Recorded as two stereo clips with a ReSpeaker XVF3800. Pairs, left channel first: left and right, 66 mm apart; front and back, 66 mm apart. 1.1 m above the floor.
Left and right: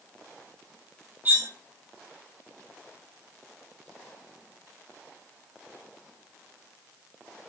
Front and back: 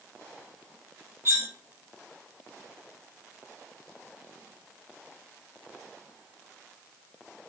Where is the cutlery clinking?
140° right, 0.5 m.